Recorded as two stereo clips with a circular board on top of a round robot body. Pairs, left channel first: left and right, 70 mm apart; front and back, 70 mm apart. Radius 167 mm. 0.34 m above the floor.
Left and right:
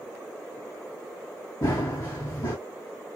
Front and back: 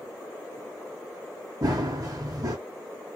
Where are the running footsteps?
135° left, 0.5 m.